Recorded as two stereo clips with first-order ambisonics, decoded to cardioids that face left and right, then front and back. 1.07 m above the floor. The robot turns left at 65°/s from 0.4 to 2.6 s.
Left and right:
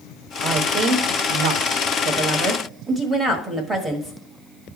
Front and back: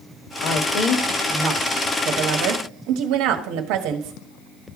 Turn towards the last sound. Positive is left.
turn(degrees=-160)